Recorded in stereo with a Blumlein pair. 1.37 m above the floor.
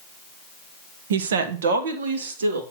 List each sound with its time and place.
1.1 s a woman speaking: 60° right, 0.9 m; by 2.6 s 65° right, 1.8 m